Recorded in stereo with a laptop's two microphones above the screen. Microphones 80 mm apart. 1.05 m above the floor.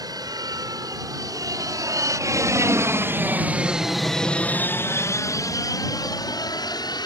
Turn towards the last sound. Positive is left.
turn(degrees=60)  # may be behind; listen again after turning